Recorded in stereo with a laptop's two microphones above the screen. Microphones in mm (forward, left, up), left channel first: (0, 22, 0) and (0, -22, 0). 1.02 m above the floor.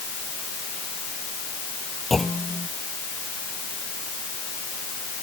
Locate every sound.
2.1 s a clunk: centre (ahead or behind)